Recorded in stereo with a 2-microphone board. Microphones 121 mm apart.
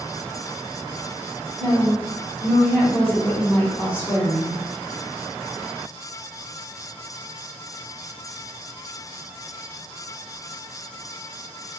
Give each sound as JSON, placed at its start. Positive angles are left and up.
{"t": 1.6, "sound": "a woman speaking", "side_deg": 20, "distance_m": 1.3}